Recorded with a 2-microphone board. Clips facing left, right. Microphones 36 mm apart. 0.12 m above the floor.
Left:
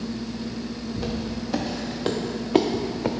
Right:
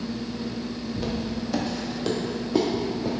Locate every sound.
1.0 s footsteps: centre (ahead or behind), 1.2 m; by 3.1 s 80° left, 0.6 m